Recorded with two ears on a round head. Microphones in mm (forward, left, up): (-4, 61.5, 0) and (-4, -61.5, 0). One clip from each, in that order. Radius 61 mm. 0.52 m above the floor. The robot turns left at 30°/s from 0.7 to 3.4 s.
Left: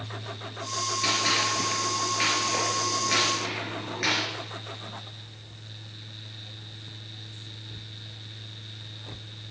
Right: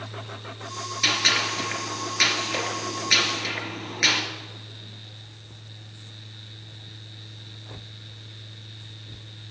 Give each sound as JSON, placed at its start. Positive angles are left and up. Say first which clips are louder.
{"t": 1.0, "sound": "a gunshot", "louder": "right 4 dB", "side_deg": -50, "distance_m": 3.0}